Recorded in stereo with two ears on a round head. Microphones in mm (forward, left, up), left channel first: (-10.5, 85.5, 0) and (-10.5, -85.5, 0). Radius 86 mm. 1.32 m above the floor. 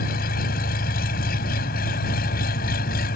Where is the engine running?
45° left (ahead or behind).